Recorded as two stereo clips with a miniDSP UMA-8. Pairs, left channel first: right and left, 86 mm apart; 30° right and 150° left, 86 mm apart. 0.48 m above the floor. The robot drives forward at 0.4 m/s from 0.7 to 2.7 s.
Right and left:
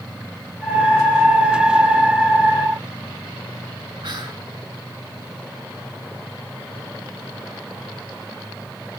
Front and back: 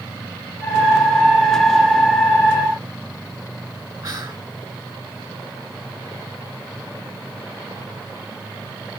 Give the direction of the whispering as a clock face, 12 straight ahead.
8 o'clock.